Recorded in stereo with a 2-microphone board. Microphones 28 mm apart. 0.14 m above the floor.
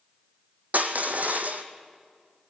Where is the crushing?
75° right (ahead or behind), 1.9 m.